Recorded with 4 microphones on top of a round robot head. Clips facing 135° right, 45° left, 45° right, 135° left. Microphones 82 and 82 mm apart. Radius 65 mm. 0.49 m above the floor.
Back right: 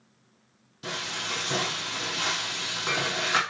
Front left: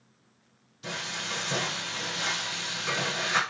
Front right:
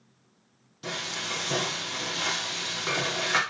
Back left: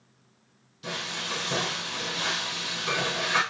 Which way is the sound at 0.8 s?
95° right.